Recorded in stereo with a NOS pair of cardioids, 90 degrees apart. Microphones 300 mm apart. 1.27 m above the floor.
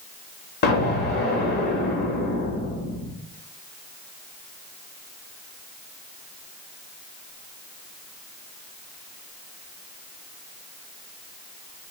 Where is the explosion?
40° left, 0.8 m.